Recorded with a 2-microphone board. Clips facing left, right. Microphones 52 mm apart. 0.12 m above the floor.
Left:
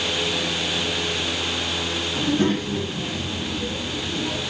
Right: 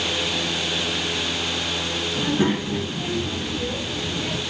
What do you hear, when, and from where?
2.1 s a child speaking: 15° right (ahead or behind), 1.1 m; by 4.4 s 50° right (ahead or behind), 1.9 m